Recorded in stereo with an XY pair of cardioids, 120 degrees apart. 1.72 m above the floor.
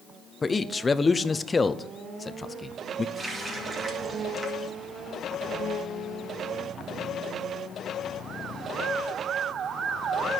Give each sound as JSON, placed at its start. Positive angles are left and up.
{"t": 0.4, "sound": "a man speaking", "azimuth_deg": 20, "distance_m": 0.6}
{"t": 3.1, "sound": "a running tap", "azimuth_deg": -30, "distance_m": 2.0}